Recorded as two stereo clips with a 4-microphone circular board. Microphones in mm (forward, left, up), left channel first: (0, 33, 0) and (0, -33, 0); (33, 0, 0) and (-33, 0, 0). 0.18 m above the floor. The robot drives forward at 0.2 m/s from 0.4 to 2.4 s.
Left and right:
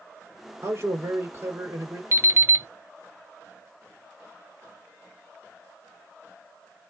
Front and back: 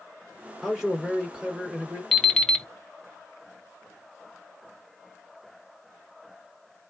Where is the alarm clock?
80° right, 0.9 m; by 2.7 s 85° right, 0.9 m.